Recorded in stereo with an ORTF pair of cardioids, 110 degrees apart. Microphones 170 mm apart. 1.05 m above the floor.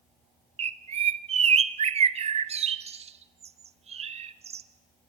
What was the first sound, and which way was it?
A bird, 40° right.